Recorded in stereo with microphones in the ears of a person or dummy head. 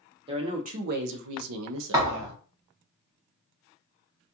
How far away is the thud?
About 1.0 m.